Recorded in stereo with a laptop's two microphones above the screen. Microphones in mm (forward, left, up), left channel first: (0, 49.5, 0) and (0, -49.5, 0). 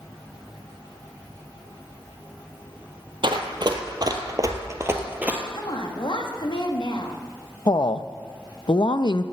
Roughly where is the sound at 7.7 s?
Left.